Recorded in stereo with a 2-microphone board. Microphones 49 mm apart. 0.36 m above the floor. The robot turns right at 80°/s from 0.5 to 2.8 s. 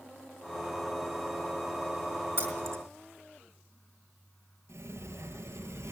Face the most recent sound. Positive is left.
turn(degrees=-75)  # may be behind; listen again after turning